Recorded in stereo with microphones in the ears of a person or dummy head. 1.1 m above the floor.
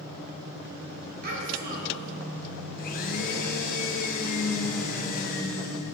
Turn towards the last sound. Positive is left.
turn(degrees=45)  # may be behind; listen again after turning